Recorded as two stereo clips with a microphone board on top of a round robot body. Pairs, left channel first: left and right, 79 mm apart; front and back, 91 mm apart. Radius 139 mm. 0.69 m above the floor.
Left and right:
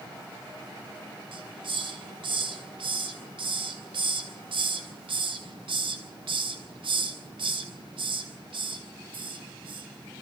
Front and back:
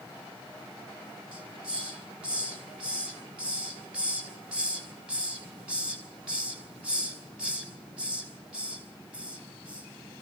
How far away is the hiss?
About 5 m.